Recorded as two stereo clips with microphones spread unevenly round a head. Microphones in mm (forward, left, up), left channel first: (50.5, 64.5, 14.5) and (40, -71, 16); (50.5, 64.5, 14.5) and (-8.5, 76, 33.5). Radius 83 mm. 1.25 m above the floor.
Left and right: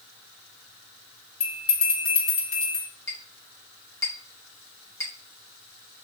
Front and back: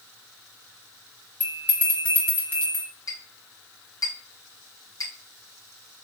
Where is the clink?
15° left, 2 m.